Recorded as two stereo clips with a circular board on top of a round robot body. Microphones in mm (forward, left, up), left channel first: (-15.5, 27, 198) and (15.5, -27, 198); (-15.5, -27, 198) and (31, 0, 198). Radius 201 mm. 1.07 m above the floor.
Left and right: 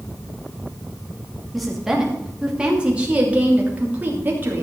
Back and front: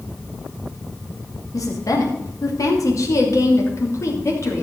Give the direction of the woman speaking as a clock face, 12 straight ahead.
5 o'clock.